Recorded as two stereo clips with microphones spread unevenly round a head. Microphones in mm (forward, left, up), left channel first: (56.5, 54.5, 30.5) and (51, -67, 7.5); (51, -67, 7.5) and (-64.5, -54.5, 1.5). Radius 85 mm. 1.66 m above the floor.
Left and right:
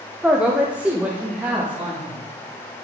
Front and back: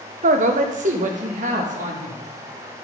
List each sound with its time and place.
0.2 s a man speaking: straight behind, 0.9 m; by 2.2 s 175° right, 3 m